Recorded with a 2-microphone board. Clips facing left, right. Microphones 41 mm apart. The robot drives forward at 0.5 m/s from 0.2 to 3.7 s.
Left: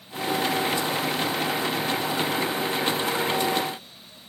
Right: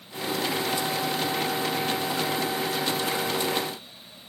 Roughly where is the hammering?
I don't hear hammering.